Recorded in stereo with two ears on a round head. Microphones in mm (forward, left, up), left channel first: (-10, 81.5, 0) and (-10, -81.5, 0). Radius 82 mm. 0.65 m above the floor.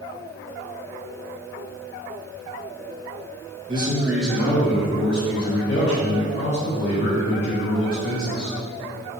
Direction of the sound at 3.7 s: 30° right (ahead or behind).